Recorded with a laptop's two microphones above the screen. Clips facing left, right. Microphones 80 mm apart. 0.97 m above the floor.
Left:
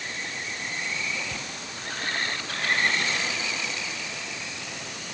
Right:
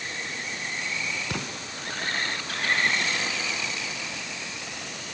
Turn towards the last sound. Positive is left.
turn(degrees=-75)  # may be behind; listen again after turning